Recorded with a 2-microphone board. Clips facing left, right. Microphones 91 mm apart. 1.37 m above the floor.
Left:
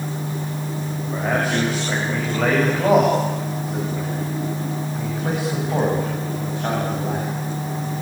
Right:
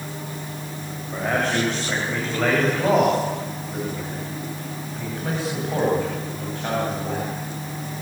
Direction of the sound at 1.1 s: 5° left (ahead or behind).